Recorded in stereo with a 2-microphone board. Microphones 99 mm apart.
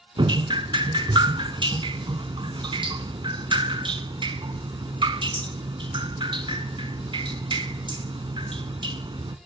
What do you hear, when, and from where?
0.2 s dripping: 55° right (ahead or behind), 0.5 m